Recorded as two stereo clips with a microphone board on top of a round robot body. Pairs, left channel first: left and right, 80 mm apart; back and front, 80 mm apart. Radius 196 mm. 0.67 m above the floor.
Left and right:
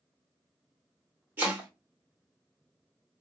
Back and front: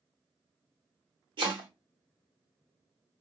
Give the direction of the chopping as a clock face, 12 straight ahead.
1 o'clock.